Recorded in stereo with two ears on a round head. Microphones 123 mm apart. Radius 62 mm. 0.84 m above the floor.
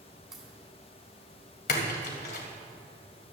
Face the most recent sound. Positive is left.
turn(degrees=70)  # may be behind; listen again after turning